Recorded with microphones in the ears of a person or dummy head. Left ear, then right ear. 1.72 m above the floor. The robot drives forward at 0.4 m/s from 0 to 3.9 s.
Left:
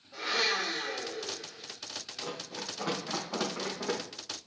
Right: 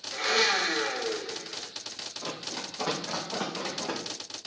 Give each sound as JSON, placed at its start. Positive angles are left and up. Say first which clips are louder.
{"t": 0.1, "sound": "a blender", "louder": "right 4 dB", "side_deg": -55, "distance_m": 2.5}
{"t": 2.2, "sound": "running footsteps", "louder": "right 3 dB", "side_deg": -15, "distance_m": 3.5}